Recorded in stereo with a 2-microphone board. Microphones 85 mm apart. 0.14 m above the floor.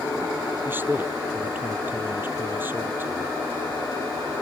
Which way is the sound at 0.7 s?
20° right (ahead or behind).